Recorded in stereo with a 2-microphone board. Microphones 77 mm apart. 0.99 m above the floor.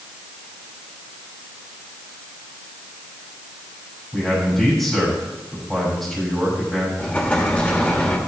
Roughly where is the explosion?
Left.